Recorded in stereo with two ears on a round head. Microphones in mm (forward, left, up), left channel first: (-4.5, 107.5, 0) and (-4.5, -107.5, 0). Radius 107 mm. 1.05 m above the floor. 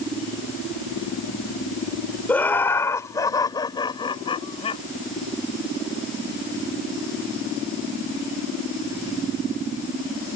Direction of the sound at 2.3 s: 5° left (ahead or behind).